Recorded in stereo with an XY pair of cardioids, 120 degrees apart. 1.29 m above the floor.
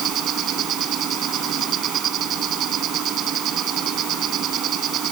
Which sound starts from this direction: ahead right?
An insect, at 0.0 s.